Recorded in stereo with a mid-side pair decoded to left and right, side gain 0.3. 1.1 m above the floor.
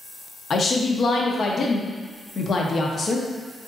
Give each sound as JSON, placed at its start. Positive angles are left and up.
{"t": 0.5, "sound": "a woman speaking", "azimuth_deg": 60, "distance_m": 0.7}